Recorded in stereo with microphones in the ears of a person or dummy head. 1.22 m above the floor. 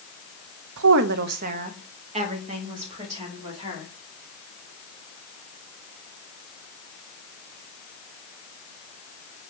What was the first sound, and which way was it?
A woman speaking, 75° right (ahead or behind).